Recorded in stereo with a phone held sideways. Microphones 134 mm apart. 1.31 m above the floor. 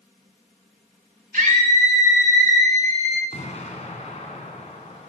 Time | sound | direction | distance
1.3 | a scream | 85° right | 4 m
3.3 | an explosion | 60° left (ahead or behind) | 2 m